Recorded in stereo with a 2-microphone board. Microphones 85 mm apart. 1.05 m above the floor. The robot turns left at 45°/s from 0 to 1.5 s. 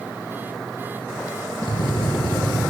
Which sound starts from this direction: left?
A drill, at 1.6 s.